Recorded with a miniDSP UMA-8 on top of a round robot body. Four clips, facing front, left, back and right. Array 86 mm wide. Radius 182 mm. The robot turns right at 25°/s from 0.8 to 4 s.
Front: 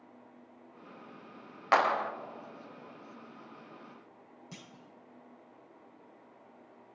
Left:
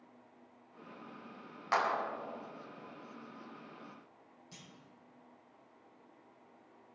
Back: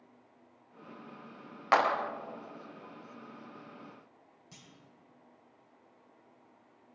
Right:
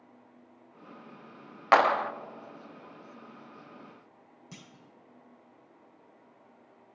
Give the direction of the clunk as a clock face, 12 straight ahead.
2 o'clock.